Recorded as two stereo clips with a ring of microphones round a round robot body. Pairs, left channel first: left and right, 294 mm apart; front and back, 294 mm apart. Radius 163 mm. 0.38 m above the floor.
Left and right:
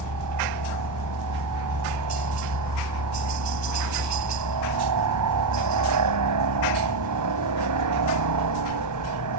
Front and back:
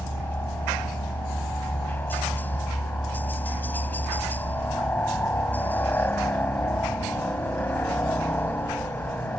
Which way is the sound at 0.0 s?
85° right.